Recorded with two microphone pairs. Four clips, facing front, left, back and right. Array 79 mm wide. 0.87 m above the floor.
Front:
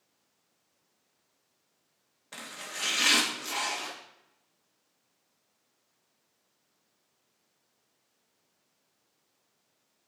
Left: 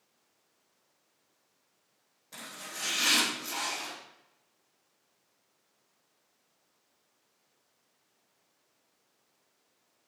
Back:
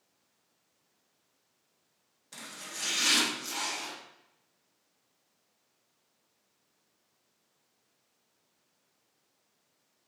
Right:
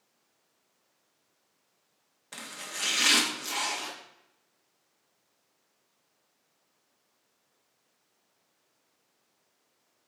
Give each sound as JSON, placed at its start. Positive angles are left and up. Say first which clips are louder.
{"t": 2.3, "sound": "chopping", "louder": "right 3 dB, front 4 dB", "azimuth_deg": -50, "distance_m": 1.4}